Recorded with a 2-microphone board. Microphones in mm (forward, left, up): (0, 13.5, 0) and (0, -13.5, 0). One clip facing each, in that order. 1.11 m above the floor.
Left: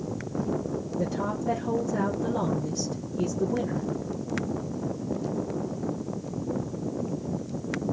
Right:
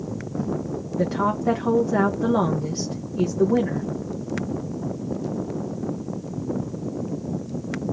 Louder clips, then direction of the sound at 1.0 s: Right 8 dB; 70° right (ahead or behind).